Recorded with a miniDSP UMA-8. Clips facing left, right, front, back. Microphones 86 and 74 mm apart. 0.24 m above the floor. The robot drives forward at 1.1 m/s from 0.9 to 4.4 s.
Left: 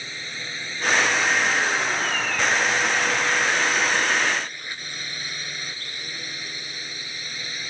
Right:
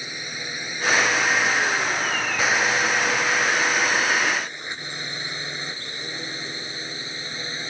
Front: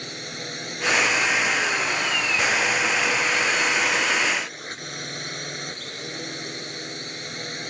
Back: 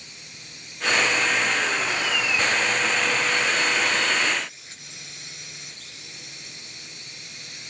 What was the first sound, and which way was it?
A drone, 15° right.